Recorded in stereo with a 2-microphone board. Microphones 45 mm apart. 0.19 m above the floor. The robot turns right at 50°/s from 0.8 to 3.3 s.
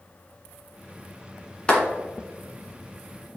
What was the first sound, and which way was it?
A clap, 25° left (ahead or behind).